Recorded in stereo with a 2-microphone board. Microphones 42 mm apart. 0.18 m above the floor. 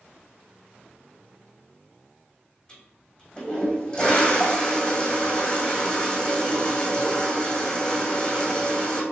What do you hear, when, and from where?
2.7 s a toilet flushing: 20° left (ahead or behind), 1.5 m